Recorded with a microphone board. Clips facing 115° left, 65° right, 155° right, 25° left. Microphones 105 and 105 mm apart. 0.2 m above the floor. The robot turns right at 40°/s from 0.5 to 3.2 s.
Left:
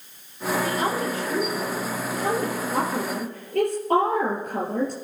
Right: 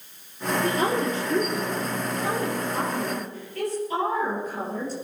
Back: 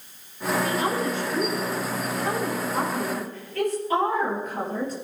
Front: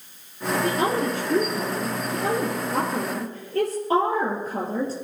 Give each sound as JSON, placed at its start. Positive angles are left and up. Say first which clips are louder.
{"t": 0.6, "sound": "a woman speaking", "louder": "right 4 dB, front 5 dB", "azimuth_deg": -25, "distance_m": 3.5}